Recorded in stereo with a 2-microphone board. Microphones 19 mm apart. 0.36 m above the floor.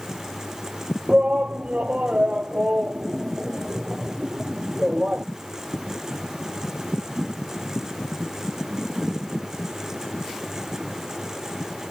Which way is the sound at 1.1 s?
80° right.